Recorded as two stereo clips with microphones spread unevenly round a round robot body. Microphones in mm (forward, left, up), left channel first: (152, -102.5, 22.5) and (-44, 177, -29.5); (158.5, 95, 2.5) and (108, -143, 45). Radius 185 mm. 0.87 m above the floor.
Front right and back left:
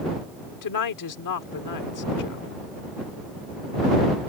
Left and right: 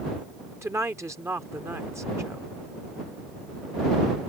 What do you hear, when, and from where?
0.6 s a woman speaking: 20° right